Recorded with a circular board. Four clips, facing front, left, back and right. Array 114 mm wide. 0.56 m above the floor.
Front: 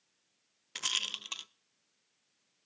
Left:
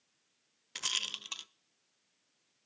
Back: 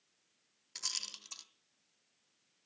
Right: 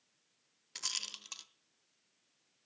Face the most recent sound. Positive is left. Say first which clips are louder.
# left 6 dB, front 10 dB
turn(degrees=30)